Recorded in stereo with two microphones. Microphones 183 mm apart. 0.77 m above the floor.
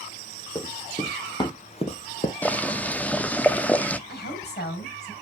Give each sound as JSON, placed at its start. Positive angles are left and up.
{"t": 0.6, "sound": "running footsteps", "side_deg": 20, "distance_m": 2.5}
{"t": 2.4, "sound": "boiling", "side_deg": 10, "distance_m": 0.5}
{"t": 4.1, "sound": "a woman speaking", "side_deg": 60, "distance_m": 4.5}